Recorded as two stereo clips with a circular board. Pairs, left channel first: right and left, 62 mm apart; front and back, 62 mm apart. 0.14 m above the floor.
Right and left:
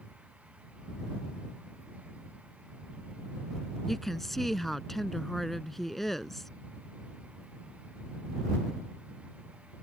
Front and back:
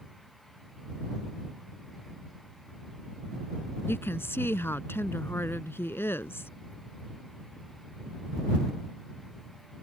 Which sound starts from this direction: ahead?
A woman speaking, at 3.9 s.